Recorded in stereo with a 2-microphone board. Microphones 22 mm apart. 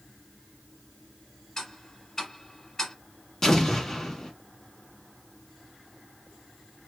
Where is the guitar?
I don't hear a guitar.